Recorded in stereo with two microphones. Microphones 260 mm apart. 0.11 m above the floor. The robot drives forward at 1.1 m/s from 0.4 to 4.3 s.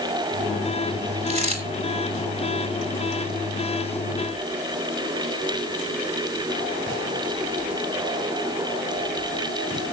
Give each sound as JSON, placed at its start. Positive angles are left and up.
{"t": 1.3, "sound": "a dropped coin", "side_deg": -25, "distance_m": 5.0}